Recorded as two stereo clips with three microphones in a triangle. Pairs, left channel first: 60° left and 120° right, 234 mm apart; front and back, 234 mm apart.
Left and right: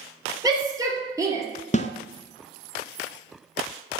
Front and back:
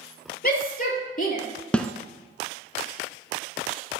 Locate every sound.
0.4 s a shout: 45° right, 3.5 m
1.7 s a snare drum: 85° left, 0.7 m